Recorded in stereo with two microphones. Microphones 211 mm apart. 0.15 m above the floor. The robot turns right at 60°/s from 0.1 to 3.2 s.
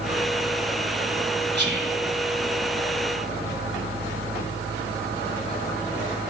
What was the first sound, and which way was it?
Whispering, 55° right (ahead or behind).